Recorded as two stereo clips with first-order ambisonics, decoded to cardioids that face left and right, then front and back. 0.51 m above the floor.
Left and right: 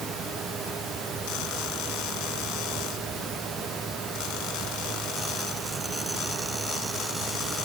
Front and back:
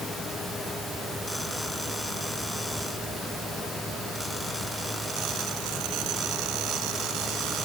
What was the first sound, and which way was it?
Only background noise.